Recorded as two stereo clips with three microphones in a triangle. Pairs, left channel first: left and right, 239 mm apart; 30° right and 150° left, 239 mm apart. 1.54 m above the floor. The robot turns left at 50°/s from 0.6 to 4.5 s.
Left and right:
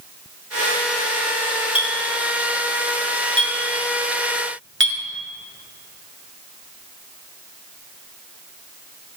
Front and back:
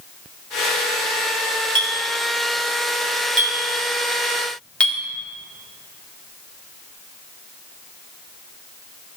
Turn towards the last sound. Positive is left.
turn(degrees=-115)